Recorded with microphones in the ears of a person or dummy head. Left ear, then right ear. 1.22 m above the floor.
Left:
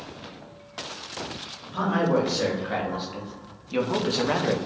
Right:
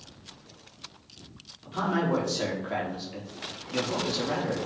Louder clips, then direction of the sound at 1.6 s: Left 3 dB; centre (ahead or behind).